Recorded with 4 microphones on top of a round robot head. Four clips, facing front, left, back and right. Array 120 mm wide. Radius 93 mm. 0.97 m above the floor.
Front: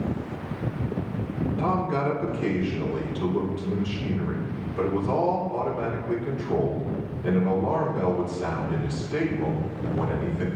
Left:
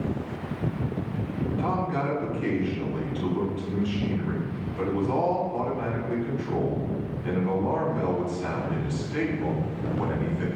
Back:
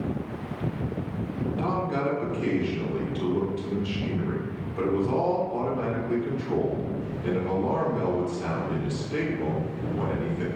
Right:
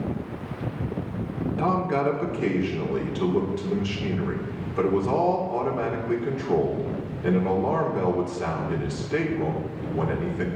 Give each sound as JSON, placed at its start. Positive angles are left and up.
{"t": 1.6, "sound": "a man speaking", "azimuth_deg": -90, "distance_m": 4.0}